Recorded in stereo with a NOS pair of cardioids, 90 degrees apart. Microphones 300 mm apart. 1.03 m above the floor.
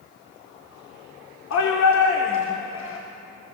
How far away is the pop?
I don't hear a pop.